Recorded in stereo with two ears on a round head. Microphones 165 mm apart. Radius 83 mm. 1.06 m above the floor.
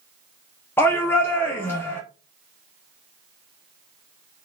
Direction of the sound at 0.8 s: 10° left (ahead or behind).